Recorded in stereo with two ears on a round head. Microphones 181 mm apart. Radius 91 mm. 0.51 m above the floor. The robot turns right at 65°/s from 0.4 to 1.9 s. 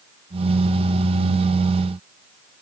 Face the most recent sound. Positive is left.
No sound to turn to.